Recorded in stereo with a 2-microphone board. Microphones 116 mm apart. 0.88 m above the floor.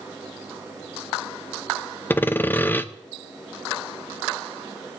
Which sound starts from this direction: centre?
Sawing, at 2.1 s.